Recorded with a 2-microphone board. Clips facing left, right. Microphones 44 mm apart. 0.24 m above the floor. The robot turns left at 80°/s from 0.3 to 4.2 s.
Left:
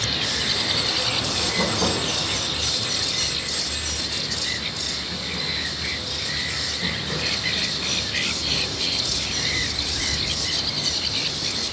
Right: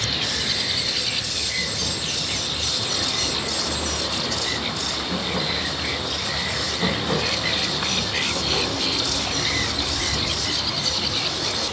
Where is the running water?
Straight behind, 2.5 m; by 11.7 s 130° right, 2.5 m.